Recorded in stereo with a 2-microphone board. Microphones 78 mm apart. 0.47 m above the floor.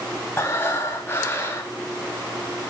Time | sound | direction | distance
0.4 | breathing | 30° left (ahead or behind) | 3.5 m